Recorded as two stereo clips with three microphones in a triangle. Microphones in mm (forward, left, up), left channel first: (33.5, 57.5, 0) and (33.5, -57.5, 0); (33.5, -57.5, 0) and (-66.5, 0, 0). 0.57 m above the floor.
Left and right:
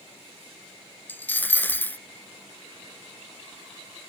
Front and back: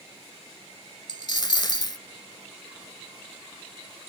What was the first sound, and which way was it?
A dropped coin, 15° left.